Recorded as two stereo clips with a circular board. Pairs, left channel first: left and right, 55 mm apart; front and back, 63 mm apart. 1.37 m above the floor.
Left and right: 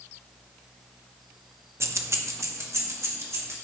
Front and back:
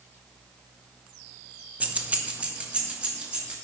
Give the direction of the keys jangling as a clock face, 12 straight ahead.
4 o'clock.